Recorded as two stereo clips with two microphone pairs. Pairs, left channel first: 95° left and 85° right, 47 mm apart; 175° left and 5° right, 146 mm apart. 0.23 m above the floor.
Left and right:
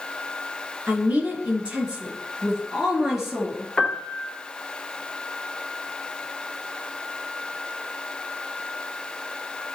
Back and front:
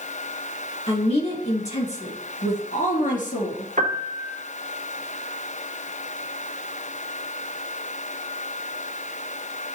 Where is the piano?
25° left, 1.3 m.